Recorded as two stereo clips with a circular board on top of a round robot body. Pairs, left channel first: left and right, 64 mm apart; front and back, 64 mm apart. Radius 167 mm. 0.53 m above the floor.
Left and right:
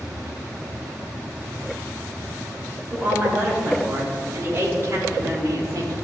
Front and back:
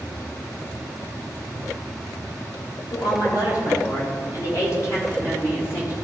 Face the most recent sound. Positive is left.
turn(degrees=-50)